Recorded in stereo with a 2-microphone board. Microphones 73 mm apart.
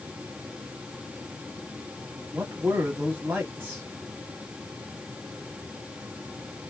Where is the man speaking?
30° right (ahead or behind), 1.0 m.